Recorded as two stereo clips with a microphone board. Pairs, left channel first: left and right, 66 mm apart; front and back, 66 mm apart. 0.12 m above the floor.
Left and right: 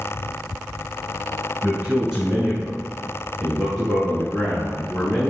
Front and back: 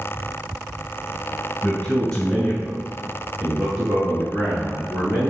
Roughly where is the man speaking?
Ahead right.